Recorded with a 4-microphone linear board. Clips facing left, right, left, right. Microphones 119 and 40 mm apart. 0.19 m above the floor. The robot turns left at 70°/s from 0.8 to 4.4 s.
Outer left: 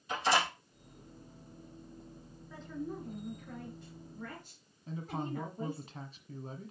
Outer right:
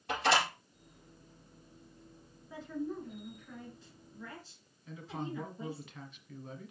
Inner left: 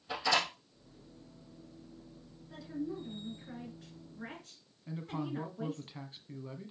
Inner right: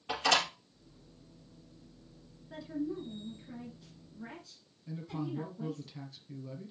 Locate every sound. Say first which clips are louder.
0.1 s a door slam: outer right 1 dB, inner right 2 dB; 70° right (ahead or behind), 4.5 m
2.5 s a woman speaking: outer right 2 dB, inner right 2 dB; 165° right, 3 m; by 5.9 s 65° left, 3 m
4.9 s a man speaking: outer left 2 dB, even; 35° left (ahead or behind), 1.6 m